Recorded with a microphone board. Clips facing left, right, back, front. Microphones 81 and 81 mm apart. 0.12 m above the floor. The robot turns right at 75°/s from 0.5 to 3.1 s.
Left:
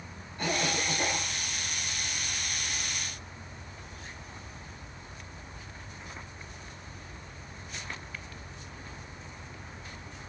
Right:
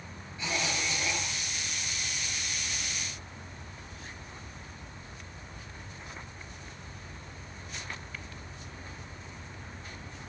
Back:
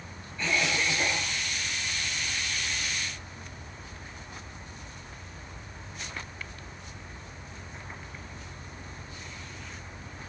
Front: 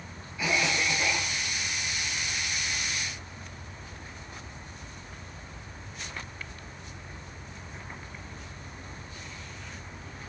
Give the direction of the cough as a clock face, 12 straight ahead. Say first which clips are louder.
Left 3 dB, front 1 dB; 9 o'clock.